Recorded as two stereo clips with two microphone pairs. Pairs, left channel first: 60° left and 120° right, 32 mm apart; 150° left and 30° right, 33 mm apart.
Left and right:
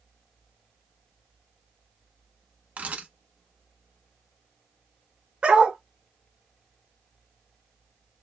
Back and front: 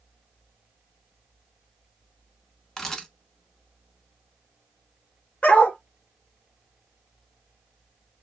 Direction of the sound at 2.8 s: 135° right.